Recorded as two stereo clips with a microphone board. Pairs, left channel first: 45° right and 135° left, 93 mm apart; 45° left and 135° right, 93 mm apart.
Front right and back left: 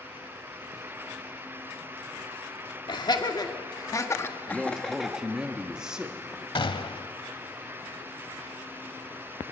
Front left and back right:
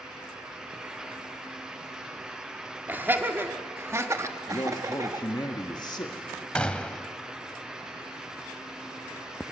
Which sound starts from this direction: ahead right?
A gunshot, at 6.5 s.